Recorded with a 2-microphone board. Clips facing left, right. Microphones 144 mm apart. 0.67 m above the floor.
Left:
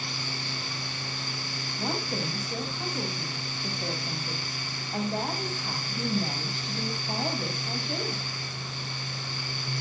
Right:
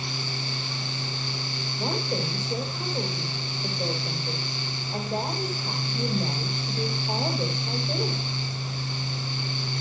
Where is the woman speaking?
65° right (ahead or behind), 3.5 m.